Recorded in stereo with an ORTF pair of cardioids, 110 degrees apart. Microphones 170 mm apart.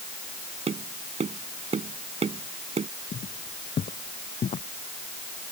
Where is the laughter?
I don't hear laughter.